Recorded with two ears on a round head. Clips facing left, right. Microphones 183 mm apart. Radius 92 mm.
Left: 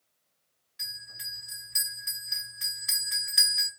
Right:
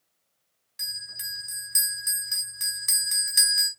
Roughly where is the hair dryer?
I don't hear a hair dryer.